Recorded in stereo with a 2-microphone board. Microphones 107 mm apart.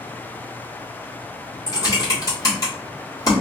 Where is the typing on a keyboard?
35° left (ahead or behind), 1.6 m.